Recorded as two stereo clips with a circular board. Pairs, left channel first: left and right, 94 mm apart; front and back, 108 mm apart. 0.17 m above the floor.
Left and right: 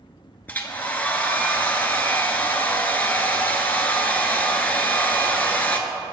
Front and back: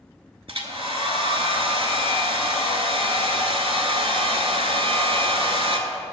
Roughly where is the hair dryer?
Behind.